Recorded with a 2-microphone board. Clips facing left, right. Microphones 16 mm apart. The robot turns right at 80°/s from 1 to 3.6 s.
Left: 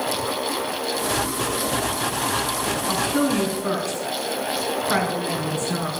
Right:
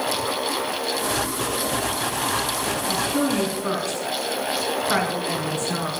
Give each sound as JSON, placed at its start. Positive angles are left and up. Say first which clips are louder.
{"t": 2.9, "sound": "a woman speaking", "louder": "left 1 dB", "side_deg": 45, "distance_m": 3.0}